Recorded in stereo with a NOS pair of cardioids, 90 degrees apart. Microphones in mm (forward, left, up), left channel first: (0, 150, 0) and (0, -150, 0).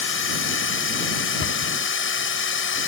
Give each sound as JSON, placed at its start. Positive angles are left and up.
{"t": 0.0, "sound": "a machine running", "azimuth_deg": 40}
{"t": 1.4, "sound": "a cupboard door", "azimuth_deg": 40}